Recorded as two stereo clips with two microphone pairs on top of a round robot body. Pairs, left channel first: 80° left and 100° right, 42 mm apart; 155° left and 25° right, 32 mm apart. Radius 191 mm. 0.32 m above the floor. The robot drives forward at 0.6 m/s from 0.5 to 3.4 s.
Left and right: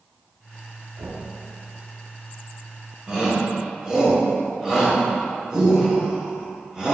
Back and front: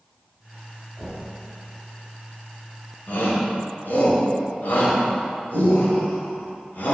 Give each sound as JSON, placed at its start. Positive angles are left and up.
{"t": 1.0, "sound": "knocking", "azimuth_deg": -120, "distance_m": 2.0}
{"t": 3.1, "sound": "a shout", "azimuth_deg": -175, "distance_m": 1.9}